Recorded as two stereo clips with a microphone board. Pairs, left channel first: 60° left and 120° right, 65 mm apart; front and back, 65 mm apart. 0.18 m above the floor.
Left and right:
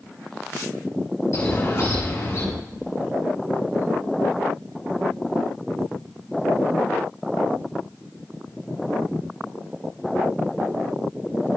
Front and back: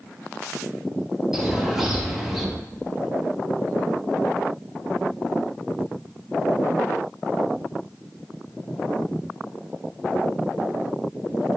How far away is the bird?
About 4 m.